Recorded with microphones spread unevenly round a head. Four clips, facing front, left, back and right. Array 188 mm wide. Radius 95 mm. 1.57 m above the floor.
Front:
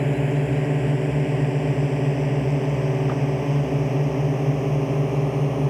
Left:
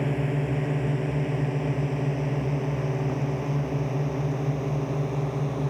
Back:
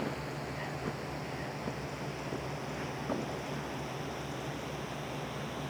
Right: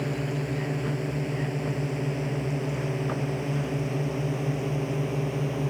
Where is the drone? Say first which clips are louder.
Left 3 dB, front 14 dB; 10° left; by 5.7 s straight ahead.